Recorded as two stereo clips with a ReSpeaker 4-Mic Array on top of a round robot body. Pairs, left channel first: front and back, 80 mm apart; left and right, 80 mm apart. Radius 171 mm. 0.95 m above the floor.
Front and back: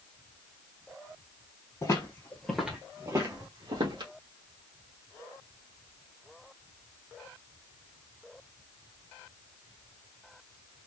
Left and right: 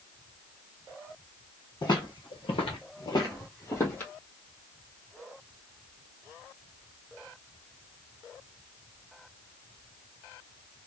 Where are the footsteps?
50° left, 1.6 m; by 4.1 s 155° left, 2.5 m.